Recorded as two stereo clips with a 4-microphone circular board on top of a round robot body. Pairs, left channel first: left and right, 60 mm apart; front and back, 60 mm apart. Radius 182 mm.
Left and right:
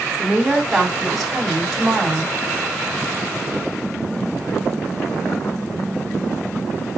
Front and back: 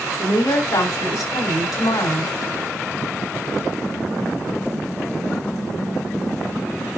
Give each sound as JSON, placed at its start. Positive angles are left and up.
{"t": 0.2, "sound": "a woman speaking", "azimuth_deg": 0, "distance_m": 4.5}